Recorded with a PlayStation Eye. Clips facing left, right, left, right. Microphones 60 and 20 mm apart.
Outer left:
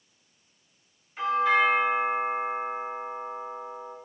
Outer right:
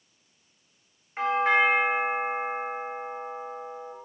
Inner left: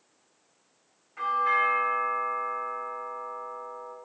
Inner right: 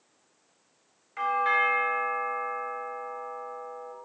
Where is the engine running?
No engine running in this recording.